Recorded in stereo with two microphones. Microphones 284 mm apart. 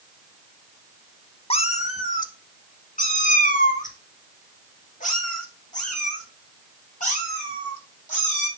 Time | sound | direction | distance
1.5 | a cat meowing | 20° left (ahead or behind) | 0.7 m